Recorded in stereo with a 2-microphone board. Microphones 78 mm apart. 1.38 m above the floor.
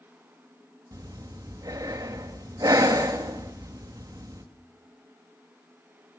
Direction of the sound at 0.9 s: 50° right (ahead or behind).